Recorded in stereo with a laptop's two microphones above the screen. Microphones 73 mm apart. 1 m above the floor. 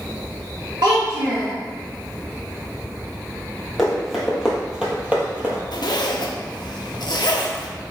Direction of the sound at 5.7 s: 75° left (ahead or behind).